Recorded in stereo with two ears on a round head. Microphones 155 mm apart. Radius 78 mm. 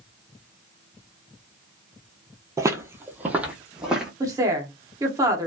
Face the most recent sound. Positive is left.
turn(degrees=-20)  # may be behind; listen again after turning